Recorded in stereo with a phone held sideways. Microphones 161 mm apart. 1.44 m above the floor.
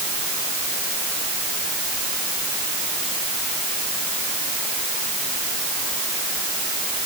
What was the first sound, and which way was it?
Only background noise.